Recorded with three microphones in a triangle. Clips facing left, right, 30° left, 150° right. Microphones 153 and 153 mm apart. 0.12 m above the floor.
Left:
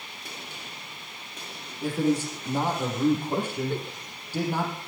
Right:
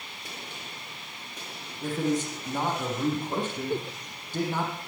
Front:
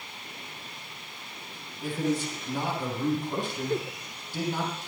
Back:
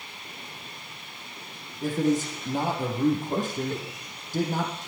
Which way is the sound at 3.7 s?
15° right.